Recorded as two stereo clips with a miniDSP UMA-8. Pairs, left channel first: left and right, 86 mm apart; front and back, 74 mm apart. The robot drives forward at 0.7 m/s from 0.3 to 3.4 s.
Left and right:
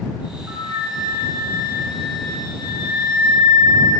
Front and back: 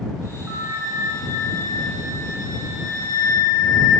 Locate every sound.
0.5 s a flute: 130° right, 1.5 m; by 3.9 s 160° right, 3 m